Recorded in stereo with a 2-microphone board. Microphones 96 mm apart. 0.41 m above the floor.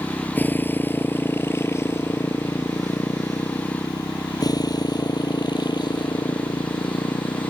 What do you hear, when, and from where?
0.0 s a motorcycle: 15° left (ahead or behind); by 7.5 s 50° left (ahead or behind)